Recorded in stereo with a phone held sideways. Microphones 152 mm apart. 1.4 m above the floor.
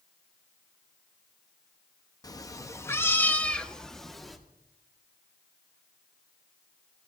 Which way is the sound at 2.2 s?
25° left (ahead or behind).